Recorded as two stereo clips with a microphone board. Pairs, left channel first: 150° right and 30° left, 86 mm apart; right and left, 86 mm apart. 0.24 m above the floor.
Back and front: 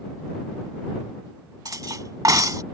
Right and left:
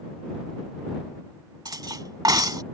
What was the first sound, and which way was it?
Cutlery clinking, 65° left.